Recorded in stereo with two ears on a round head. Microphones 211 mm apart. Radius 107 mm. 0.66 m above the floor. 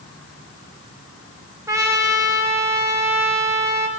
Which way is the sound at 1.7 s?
15° right (ahead or behind).